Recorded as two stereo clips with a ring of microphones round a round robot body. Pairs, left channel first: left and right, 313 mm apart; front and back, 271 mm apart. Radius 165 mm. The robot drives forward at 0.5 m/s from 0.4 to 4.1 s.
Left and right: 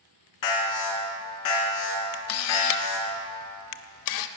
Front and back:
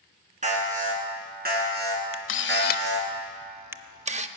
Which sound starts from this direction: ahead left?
A camera shutter, at 2.1 s.